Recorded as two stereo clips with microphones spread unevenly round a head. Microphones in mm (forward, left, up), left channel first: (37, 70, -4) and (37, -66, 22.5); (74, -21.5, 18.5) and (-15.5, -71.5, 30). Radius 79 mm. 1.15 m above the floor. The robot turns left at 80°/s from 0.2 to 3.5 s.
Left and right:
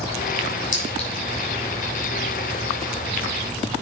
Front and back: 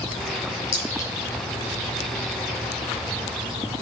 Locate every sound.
0.7 s a clink: 60° left, 5.5 m; by 1.1 s 30° left, 5.5 m